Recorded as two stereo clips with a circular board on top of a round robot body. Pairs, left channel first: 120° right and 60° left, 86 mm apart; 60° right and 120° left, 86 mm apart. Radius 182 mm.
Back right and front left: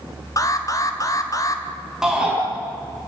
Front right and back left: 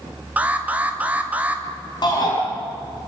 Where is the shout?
25° right, 5 m.